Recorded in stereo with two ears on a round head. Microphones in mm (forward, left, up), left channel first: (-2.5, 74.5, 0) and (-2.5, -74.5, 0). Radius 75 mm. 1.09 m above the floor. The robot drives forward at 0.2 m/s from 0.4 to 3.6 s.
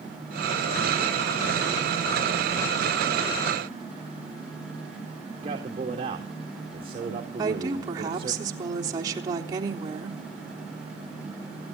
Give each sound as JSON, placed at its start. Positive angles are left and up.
{"t": 5.4, "sound": "a man speaking", "side_deg": -30, "distance_m": 2.5}
{"t": 7.4, "sound": "a woman speaking", "side_deg": -25, "distance_m": 3.5}